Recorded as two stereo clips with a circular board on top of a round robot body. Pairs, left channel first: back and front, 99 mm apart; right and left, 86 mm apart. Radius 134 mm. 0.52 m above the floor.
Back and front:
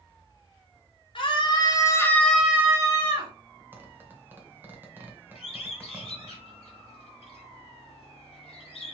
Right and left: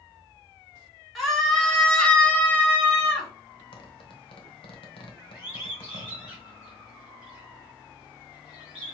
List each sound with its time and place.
1.1 s a scream: straight behind, 2 m; by 3.3 s 20° right, 2.0 m
3.7 s a zipper: 70° right, 1.0 m
5.3 s a bird: 170° left, 1.4 m